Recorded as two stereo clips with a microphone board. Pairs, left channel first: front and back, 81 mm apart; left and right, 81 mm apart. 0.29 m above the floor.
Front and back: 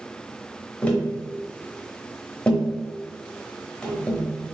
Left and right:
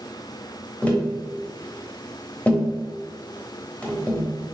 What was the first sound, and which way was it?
Tapping, 55° left.